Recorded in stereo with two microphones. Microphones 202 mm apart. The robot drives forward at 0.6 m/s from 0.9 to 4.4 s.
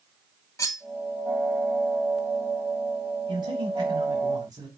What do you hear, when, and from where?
0.6 s cutlery clinking: 15° left (ahead or behind), 0.7 m
3.3 s a man speaking: 20° right (ahead or behind), 1.8 m